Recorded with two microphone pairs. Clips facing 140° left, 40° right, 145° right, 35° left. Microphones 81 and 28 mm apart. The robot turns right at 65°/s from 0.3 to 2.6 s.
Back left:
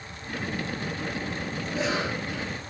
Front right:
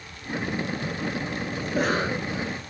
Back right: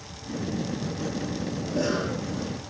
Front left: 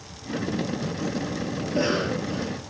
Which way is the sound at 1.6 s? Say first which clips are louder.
Front right 4 dB, front left 3 dB; 20° right.